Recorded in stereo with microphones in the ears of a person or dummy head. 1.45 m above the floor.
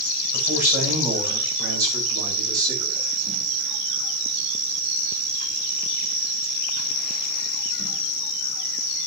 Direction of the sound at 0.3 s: 5° right (ahead or behind).